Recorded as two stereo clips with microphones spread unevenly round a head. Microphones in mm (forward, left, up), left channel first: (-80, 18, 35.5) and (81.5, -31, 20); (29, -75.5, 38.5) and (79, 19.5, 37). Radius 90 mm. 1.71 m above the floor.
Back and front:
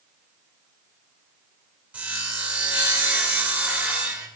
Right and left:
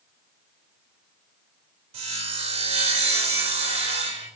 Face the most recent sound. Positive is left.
turn(degrees=65)